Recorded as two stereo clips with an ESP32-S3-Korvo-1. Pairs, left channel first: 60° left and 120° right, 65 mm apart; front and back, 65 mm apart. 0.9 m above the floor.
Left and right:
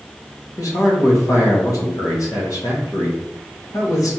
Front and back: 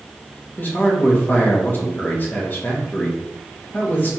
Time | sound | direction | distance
0.6 | a man speaking | 55° left | 1.1 m